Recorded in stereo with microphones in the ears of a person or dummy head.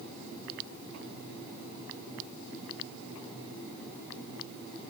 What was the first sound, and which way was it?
Only background noise.